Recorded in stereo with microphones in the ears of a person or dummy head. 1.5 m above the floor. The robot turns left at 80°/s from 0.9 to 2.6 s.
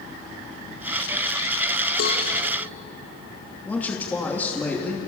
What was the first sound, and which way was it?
A cowbell, 60° left (ahead or behind).